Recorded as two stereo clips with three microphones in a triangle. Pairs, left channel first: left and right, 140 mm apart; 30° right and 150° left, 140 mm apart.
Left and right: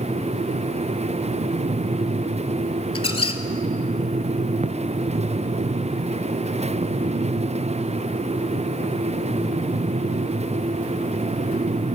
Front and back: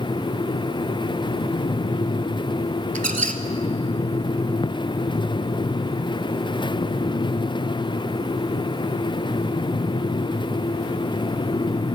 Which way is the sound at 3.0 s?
135° left.